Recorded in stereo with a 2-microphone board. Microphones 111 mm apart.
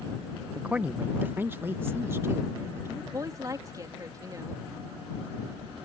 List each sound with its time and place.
0.6 s a man speaking: 10° right (ahead or behind); by 3.0 s 25° right (ahead or behind)
3.1 s a woman speaking: 30° right (ahead or behind)